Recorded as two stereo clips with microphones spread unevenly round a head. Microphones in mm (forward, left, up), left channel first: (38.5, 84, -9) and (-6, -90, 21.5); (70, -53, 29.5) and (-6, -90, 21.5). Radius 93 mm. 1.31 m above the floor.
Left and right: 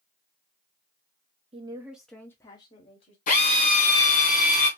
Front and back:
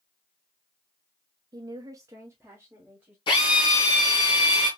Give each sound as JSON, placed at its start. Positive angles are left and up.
{"t": 1.5, "sound": "a woman speaking", "azimuth_deg": -165, "distance_m": 0.6}
{"t": 3.3, "sound": "a drill", "azimuth_deg": 30, "distance_m": 1.7}